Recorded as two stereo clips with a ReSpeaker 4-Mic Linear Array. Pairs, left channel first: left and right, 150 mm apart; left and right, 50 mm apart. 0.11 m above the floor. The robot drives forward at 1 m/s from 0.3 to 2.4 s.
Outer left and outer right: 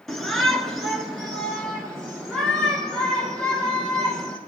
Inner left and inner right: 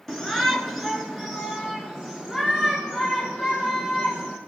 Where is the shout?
Centre (ahead or behind), 1.1 m.